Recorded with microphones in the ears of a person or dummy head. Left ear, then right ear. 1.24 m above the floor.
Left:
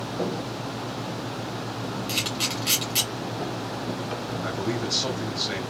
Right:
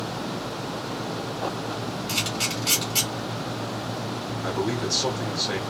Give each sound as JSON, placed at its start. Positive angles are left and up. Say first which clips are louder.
{"t": 2.1, "sound": "a camera shutter", "louder": "even", "side_deg": 20, "distance_m": 1.7}
{"t": 4.4, "sound": "a man speaking", "louder": "right 3 dB", "side_deg": 10, "distance_m": 1.8}